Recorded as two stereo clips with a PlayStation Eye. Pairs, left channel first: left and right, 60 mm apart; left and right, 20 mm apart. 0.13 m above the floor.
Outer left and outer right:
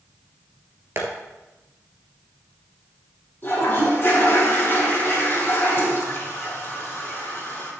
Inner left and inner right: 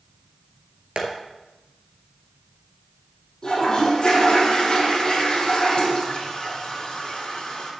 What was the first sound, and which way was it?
Tapping, 50° right (ahead or behind).